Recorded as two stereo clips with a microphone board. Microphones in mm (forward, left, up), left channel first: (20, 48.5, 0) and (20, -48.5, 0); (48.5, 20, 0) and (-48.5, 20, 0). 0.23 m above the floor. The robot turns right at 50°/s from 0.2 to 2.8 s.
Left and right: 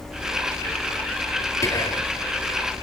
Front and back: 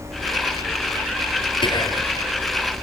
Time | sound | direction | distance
1.6 | whispering | 30° left | 5 m